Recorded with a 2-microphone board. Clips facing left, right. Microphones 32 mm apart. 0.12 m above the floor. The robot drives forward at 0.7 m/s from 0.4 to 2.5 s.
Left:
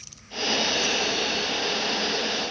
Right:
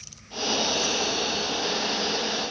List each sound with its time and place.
Only background noise.